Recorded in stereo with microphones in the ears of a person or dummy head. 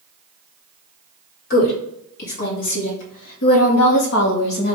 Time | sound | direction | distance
1.5 | a woman speaking | 55° left (ahead or behind) | 1.7 m